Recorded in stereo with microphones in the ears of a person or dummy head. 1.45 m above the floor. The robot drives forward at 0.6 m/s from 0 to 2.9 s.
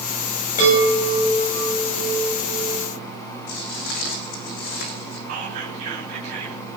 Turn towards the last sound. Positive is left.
turn(degrees=-40)  # may be behind; listen again after turning